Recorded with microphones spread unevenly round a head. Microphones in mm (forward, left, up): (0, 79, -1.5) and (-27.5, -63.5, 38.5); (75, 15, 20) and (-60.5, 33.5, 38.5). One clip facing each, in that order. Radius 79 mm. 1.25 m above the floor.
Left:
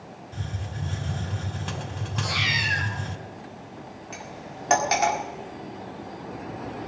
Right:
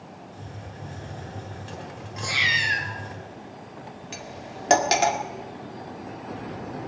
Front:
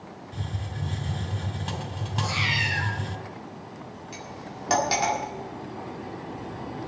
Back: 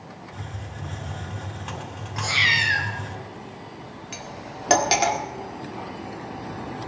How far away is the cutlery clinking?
About 1.6 m.